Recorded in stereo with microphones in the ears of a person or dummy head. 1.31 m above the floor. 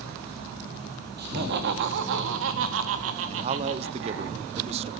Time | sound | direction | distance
1.2 | laughter | 55° right (ahead or behind) | 1.8 m
3.3 | a man speaking | 30° right (ahead or behind) | 0.5 m